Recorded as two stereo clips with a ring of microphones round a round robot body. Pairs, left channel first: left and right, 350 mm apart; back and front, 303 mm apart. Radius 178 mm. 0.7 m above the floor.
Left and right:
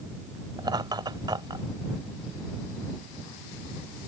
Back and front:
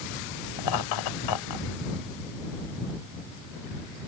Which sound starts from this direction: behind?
Laughter, at 0.6 s.